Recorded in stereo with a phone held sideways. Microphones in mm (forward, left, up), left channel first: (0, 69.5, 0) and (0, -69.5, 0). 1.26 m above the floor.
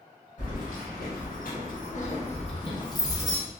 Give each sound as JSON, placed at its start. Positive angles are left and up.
{"t": 0.4, "sound": "keys jangling", "side_deg": 65, "distance_m": 1.2}